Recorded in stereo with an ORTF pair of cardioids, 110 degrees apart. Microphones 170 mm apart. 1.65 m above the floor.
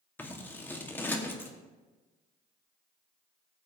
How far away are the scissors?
About 1.2 m.